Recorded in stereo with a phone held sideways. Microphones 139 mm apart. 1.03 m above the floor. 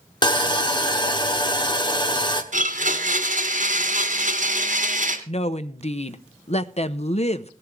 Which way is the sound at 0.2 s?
35° left (ahead or behind).